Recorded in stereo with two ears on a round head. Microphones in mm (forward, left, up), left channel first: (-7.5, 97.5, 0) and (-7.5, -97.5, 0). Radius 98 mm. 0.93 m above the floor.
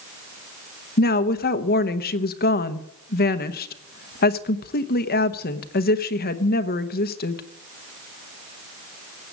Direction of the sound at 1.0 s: 45° left (ahead or behind).